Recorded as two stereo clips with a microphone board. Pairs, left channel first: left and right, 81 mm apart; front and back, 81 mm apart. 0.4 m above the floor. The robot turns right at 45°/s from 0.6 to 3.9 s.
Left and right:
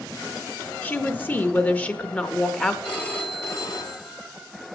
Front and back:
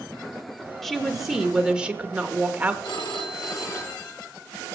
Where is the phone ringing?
10° left, 2.5 m; by 4.3 s 55° left, 2.5 m.